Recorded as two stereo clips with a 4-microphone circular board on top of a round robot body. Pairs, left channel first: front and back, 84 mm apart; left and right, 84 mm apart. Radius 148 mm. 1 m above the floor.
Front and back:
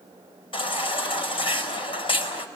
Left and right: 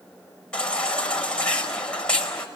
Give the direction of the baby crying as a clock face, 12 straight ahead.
12 o'clock.